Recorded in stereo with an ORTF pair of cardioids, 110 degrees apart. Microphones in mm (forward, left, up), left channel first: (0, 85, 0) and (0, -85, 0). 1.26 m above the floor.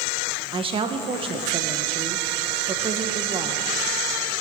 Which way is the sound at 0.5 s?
30° right.